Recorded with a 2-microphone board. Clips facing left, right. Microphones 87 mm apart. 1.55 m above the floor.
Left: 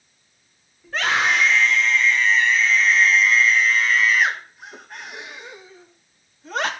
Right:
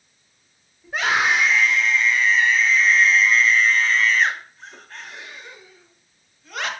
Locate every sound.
0.8 s a scream: 10° right (ahead or behind), 5 m; by 6.7 s 35° left (ahead or behind), 2.5 m